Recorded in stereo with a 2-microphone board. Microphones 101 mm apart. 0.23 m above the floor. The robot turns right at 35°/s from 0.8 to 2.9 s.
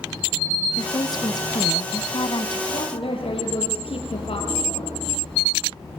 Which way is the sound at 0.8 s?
45° left.